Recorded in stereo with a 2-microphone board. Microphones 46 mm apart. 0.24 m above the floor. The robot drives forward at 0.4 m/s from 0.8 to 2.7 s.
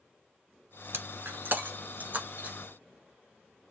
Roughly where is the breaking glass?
Right.